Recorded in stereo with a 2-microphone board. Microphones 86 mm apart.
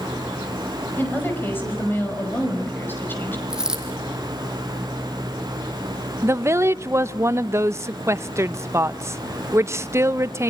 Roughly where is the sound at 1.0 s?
Left.